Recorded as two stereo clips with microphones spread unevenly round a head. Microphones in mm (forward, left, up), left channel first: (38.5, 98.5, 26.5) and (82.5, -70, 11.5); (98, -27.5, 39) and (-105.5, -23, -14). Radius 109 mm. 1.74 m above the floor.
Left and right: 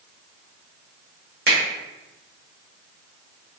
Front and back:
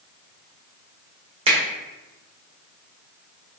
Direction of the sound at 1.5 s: 115° right.